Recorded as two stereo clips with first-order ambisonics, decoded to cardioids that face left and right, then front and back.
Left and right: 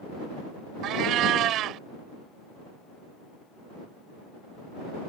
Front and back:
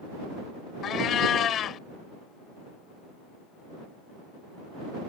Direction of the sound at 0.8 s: 50° right.